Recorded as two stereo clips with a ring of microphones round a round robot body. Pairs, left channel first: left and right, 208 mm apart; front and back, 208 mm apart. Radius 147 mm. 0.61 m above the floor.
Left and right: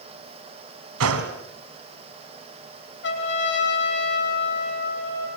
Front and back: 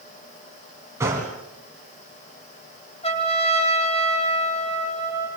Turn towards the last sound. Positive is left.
turn(degrees=60)